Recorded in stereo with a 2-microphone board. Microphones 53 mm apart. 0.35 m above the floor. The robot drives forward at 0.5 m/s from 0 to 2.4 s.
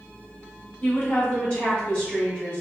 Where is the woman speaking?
30° left (ahead or behind), 1.0 m; by 2.6 s 20° left (ahead or behind), 1.4 m.